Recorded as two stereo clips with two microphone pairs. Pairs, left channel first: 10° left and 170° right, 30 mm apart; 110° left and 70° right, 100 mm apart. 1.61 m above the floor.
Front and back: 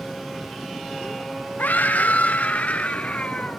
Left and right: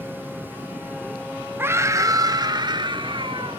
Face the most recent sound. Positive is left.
turn(degrees=-40)